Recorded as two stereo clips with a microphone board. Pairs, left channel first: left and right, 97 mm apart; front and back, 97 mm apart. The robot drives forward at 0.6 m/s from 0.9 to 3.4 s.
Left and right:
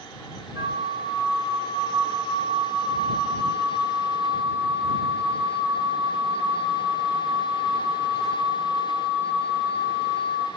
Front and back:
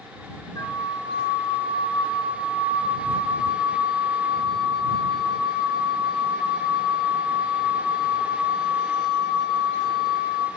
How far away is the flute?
About 1.3 m.